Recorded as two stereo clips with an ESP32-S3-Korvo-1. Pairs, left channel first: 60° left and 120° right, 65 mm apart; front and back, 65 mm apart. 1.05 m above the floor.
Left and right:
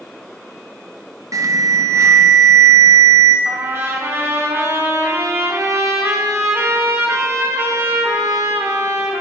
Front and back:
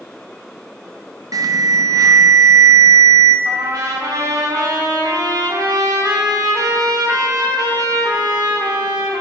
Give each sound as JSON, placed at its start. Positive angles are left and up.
{"t": 1.3, "sound": "an alarm", "azimuth_deg": -155, "distance_m": 0.6}
{"t": 3.5, "sound": "a trumpet", "azimuth_deg": -170, "distance_m": 1.3}